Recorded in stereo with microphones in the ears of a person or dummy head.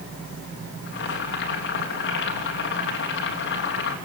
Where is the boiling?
75° left (ahead or behind), 3 m.